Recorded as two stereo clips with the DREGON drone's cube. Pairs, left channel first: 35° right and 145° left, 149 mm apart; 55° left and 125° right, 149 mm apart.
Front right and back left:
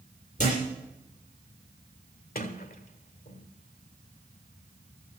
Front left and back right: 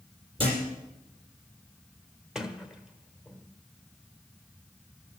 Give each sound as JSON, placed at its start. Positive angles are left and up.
{"t": 0.4, "sound": "a thud", "azimuth_deg": -70, "distance_m": 6.5}
{"t": 2.4, "sound": "a sliding door", "azimuth_deg": -40, "distance_m": 1.2}